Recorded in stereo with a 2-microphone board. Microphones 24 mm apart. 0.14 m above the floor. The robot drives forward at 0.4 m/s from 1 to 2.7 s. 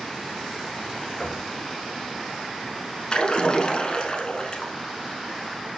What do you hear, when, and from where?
1.2 s knocking: 45° left (ahead or behind), 1.1 m
3.1 s a splash: 40° left (ahead or behind), 0.8 m